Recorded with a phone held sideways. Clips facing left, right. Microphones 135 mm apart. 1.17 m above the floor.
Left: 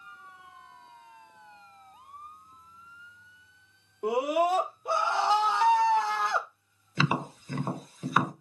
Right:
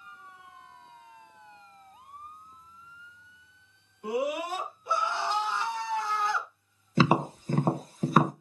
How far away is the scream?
About 2.5 m.